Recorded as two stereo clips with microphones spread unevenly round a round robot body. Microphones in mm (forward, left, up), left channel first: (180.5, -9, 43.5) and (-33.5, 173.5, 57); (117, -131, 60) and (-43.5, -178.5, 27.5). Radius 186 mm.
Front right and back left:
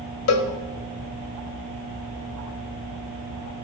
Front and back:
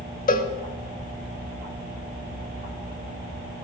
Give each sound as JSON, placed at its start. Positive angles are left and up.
{"t": 0.3, "sound": "a cowbell", "azimuth_deg": -10, "distance_m": 0.9}